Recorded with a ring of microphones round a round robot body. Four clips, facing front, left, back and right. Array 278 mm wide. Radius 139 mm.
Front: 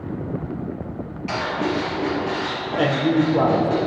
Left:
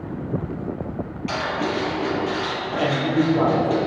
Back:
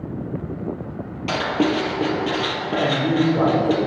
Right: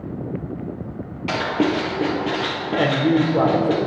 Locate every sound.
1.3 s writing: 130° right, 2.5 m
2.8 s a man speaking: 60° right, 2 m